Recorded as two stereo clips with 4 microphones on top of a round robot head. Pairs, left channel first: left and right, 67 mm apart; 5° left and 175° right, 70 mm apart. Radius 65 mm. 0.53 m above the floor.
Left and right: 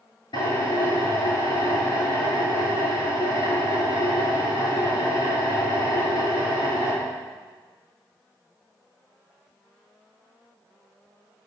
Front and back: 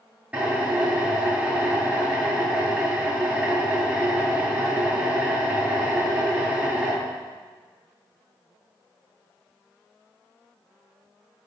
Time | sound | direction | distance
0.3 | a drill | 115° left | 9.5 m